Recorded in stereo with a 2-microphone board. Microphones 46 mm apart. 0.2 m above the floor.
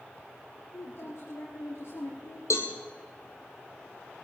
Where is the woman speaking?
65° left (ahead or behind), 5 m.